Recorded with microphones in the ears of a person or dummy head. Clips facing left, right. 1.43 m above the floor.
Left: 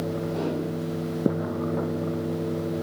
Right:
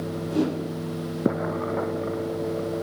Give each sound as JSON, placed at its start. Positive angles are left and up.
{"t": 0.3, "sound": "a whoosh", "side_deg": -80, "distance_m": 3.0}